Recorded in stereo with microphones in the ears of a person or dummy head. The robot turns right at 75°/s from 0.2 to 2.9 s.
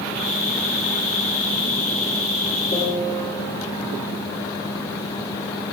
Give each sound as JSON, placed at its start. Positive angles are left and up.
{"t": 2.7, "sound": "a piano", "side_deg": 25, "distance_m": 3.0}